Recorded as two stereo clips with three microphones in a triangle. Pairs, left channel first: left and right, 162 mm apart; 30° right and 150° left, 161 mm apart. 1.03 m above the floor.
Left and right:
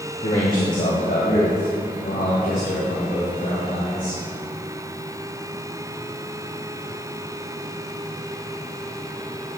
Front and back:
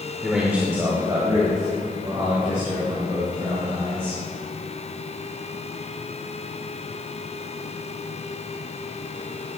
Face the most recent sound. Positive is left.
turn(degrees=100)